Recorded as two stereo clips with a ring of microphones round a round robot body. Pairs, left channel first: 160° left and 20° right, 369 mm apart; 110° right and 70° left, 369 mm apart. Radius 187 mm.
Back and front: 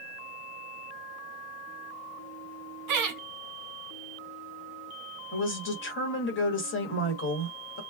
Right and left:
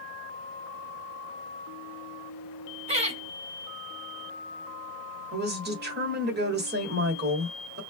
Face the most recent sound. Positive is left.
turn(degrees=115)